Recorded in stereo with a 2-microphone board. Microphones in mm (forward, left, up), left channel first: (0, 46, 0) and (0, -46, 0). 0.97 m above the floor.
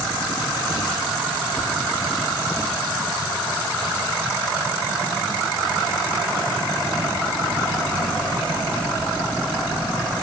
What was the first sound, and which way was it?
Only background noise.